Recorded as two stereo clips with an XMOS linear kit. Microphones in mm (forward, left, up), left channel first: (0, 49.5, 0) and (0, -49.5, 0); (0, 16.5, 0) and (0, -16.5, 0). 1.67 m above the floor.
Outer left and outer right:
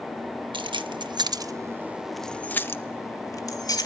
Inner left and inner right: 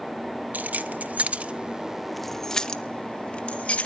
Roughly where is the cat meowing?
I don't hear a cat meowing.